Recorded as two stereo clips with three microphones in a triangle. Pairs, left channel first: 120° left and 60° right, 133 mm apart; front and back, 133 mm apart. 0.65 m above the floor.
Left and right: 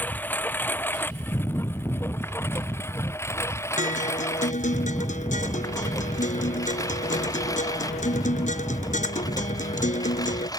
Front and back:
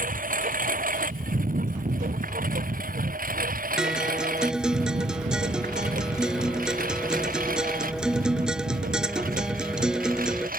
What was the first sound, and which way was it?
A lawn mower, 165° right.